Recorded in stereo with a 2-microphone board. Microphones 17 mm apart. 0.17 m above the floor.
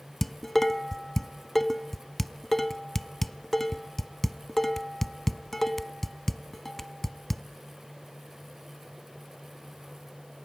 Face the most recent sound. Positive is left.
turn(degrees=10)  # may be behind; listen again after turning